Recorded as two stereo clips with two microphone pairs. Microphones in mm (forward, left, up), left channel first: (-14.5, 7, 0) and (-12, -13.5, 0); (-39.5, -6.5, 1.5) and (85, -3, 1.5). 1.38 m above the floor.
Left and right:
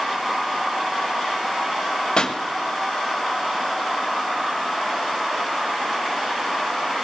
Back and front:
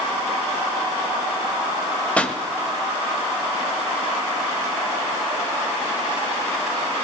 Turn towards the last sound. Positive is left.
turn(degrees=105)